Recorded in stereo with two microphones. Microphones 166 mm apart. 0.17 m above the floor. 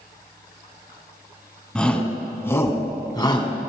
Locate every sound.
1.8 s a shout: 5° left (ahead or behind), 1.6 m; by 3.5 s 30° left (ahead or behind), 1.5 m